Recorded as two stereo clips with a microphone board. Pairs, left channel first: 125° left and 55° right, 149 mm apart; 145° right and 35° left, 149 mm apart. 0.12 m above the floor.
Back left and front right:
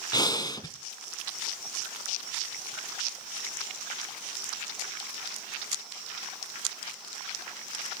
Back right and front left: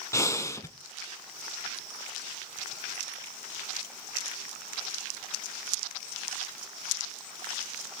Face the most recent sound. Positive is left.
turn(degrees=160)